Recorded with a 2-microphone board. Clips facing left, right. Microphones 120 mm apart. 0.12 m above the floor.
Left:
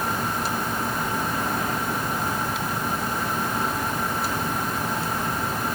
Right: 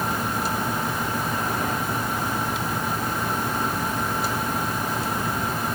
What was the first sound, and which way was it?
Only background noise.